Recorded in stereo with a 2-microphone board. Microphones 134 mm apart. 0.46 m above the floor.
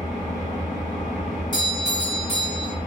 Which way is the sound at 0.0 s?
80° left.